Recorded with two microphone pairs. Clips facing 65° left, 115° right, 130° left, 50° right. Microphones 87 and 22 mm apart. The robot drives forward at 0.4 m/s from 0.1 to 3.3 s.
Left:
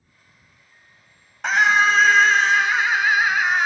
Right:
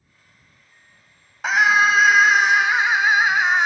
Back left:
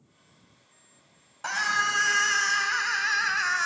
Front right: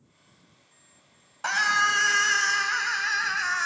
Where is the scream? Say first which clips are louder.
Right 1 dB, front right 3 dB; 35° right, 0.9 m; by 3.7 s 160° right, 1.0 m.